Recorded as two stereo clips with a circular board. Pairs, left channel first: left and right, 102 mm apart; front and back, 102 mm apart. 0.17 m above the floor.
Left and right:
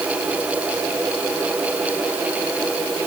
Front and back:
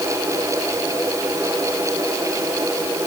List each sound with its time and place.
Only background noise.